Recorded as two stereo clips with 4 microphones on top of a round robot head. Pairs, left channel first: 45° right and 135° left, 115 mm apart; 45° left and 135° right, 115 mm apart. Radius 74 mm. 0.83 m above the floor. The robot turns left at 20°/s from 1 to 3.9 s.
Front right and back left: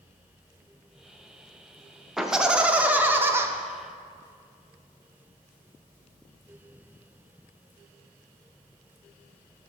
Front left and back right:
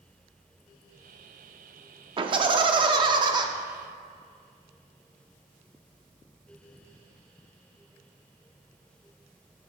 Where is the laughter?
140° right, 0.7 m; by 3.5 s 165° right, 0.7 m.